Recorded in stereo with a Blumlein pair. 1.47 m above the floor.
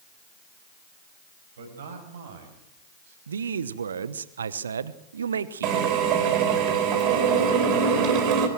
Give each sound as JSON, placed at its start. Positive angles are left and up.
{"t": 1.6, "sound": "a man speaking", "azimuth_deg": -65, "distance_m": 6.5}
{"t": 3.3, "sound": "a man speaking", "azimuth_deg": -70, "distance_m": 1.0}
{"t": 5.6, "sound": "a drill", "azimuth_deg": -40, "distance_m": 4.0}